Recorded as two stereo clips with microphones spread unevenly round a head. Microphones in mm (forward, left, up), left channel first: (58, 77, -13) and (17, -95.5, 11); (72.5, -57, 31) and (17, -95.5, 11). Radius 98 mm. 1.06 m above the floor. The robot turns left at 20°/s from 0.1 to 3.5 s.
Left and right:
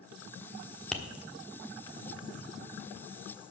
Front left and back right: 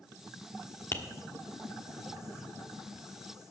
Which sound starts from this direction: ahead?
Tapping, at 0.9 s.